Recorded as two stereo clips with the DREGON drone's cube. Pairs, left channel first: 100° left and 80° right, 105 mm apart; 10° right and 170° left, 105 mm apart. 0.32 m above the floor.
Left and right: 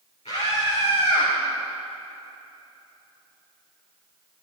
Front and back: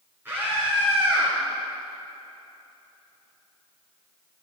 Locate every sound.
0.2 s a scream: 100° left, 5 m; by 1.3 s 95° left, 6 m